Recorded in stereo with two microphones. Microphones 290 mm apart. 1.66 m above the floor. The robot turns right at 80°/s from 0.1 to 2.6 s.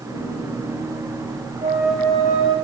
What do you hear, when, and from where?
1.6 s a flute: 25° right, 5 m; by 2.5 s 50° left, 5 m